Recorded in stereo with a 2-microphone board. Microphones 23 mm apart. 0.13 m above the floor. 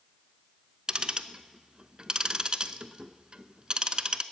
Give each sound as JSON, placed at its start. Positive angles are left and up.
{"t": 0.9, "sound": "ticking", "side_deg": -30, "distance_m": 0.6}